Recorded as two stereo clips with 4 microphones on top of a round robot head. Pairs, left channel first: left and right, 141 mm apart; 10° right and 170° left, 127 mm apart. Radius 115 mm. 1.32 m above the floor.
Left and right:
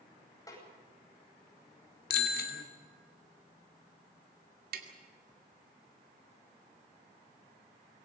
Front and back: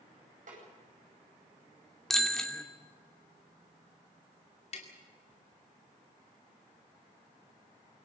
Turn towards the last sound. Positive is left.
turn(degrees=-60)